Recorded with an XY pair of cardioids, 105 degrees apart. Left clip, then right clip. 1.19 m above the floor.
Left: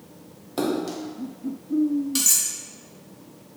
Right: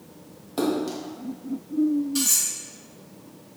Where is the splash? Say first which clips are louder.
Even; 10° left, 0.6 m.